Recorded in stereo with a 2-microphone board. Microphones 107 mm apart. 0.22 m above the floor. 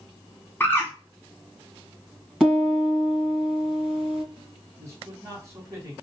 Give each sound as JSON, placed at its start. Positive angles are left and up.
{"t": 0.6, "sound": "a bird", "side_deg": 20, "distance_m": 1.2}
{"t": 2.4, "sound": "a piano", "side_deg": -5, "distance_m": 2.0}
{"t": 4.8, "sound": "a man speaking", "side_deg": -30, "distance_m": 1.7}